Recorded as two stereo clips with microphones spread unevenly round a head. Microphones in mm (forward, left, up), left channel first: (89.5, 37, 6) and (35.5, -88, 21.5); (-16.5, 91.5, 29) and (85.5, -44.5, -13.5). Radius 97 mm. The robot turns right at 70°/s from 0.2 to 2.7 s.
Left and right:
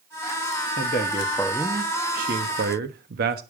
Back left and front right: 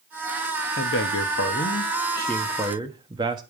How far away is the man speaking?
About 1.2 m.